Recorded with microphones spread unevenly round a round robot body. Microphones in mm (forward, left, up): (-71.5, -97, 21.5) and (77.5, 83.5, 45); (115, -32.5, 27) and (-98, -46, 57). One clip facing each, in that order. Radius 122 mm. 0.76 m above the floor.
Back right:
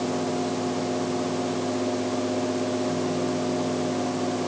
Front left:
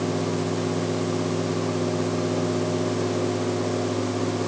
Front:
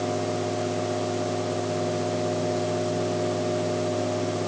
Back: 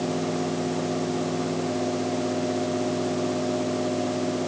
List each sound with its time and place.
Only background noise.